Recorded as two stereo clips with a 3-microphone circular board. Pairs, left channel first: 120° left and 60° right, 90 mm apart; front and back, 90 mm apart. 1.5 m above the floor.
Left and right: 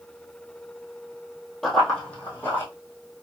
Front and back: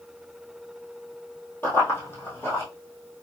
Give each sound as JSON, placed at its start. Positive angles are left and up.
{"t": 1.6, "sound": "running footsteps", "azimuth_deg": 35, "distance_m": 1.7}